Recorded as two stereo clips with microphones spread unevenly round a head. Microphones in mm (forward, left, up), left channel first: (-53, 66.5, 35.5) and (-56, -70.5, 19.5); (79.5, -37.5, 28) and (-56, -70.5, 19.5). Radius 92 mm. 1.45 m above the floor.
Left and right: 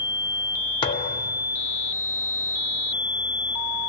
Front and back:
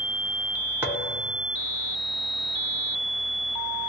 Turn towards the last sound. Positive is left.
turn(degrees=115)